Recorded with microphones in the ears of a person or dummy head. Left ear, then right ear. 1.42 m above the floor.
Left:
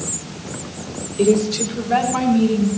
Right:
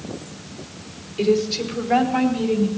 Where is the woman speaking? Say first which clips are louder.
Left 3 dB; 75° right (ahead or behind), 4.5 m.